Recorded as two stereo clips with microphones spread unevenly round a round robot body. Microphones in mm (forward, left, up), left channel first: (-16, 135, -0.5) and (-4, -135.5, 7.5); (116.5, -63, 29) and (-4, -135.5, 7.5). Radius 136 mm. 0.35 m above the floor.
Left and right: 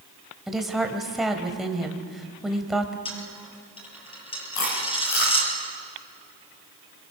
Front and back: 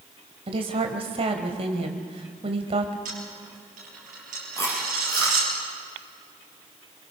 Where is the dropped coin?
160° left, 4.5 m.